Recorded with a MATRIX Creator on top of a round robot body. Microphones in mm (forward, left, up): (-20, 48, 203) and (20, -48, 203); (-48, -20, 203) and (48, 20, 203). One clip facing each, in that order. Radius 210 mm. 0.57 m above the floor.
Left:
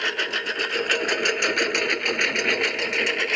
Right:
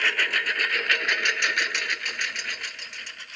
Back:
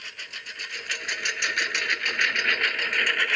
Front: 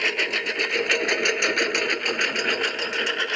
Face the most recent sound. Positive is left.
turn(degrees=90)